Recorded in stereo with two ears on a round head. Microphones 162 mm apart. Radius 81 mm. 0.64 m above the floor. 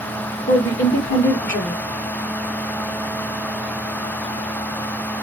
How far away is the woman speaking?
About 1.3 m.